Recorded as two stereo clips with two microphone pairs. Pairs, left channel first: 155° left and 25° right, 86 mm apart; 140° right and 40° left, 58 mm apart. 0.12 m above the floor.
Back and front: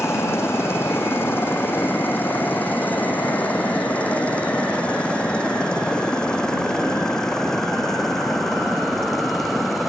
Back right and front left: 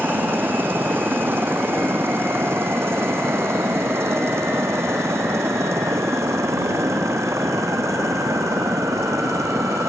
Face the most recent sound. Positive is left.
turn(degrees=65)